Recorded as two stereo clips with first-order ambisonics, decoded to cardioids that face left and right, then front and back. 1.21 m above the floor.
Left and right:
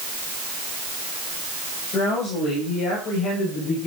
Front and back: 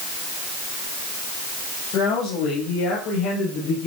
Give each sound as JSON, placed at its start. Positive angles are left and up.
{"t": 1.9, "sound": "a woman speaking", "azimuth_deg": 40, "distance_m": 6.5}